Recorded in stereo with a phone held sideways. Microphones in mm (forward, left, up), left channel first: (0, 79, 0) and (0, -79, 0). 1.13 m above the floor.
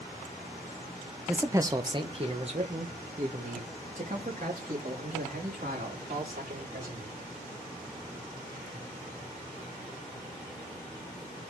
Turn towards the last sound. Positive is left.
turn(degrees=-60)  # may be behind; listen again after turning